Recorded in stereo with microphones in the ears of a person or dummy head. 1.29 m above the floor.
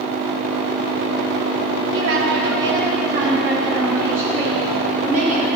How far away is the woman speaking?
About 3 m.